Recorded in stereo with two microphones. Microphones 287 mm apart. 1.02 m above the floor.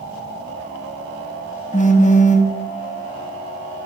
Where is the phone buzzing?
25° left (ahead or behind), 0.8 m.